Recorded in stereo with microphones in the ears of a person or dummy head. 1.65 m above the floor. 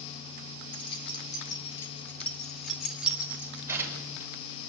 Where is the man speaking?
I don't hear a man speaking.